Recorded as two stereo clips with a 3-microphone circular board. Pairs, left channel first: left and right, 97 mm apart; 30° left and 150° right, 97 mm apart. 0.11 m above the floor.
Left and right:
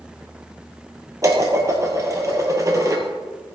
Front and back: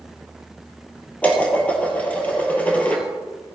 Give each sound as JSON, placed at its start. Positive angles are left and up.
{"t": 1.2, "sound": "dishes clattering", "azimuth_deg": -40, "distance_m": 2.0}